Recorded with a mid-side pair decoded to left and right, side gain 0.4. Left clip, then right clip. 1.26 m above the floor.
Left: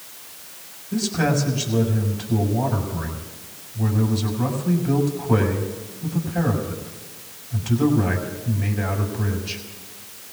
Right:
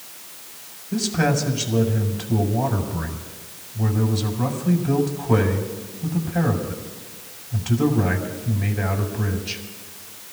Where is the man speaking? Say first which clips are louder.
Right 1 dB; 10° right, 4.5 m.